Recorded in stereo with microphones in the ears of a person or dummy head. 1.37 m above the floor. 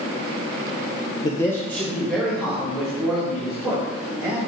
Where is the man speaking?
25° left (ahead or behind), 0.8 m; by 4.4 s centre (ahead or behind), 5.5 m.